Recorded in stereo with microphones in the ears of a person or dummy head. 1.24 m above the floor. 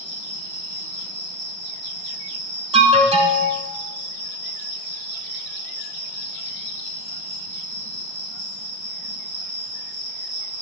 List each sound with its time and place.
0.0 s an insect: 5° left (ahead or behind), 1.3 m
2.7 s an alarm: 30° right (ahead or behind), 1.1 m